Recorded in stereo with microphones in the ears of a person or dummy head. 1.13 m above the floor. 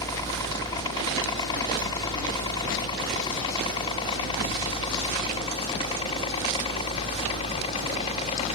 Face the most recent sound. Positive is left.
turn(degrees=35)  # may be behind; listen again after turning